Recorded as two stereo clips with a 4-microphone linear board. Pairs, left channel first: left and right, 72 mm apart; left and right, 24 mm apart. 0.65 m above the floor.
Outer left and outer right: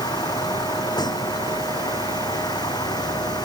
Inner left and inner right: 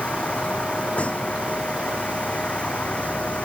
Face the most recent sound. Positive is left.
turn(degrees=75)  # may be behind; listen again after turning